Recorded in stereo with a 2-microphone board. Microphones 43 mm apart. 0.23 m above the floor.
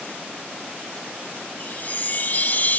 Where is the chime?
45° left (ahead or behind).